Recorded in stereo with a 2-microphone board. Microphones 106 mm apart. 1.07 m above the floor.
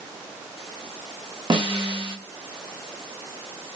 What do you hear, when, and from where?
1.5 s a snare drum: 50° right (ahead or behind), 0.9 m